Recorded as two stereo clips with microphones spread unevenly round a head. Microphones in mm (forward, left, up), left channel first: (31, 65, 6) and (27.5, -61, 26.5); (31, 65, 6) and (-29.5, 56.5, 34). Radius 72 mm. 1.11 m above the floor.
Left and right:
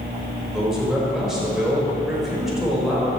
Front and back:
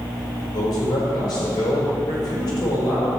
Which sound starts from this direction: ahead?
A man speaking, at 0.5 s.